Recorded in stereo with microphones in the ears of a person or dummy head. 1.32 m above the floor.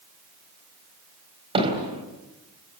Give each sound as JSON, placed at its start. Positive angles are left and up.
{"t": 1.6, "sound": "hammering", "side_deg": -25, "distance_m": 4.0}